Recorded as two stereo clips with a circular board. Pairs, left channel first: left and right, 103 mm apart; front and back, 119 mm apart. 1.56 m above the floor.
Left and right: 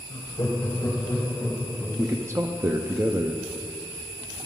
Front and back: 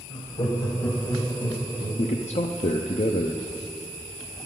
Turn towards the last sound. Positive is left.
turn(degrees=-25)